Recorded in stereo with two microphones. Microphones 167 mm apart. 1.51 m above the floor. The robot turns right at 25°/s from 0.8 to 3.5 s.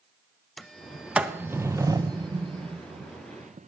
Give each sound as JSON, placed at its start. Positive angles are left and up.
{"t": 0.6, "sound": "a sliding door", "side_deg": 0, "distance_m": 0.7}